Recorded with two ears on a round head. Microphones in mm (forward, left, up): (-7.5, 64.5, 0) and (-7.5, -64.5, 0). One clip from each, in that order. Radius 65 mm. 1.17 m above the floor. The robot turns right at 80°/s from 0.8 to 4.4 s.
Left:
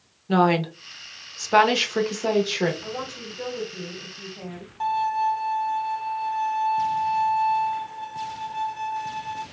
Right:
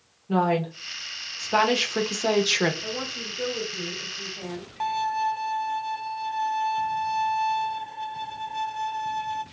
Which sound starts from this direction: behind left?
A woman speaking, at 2.8 s.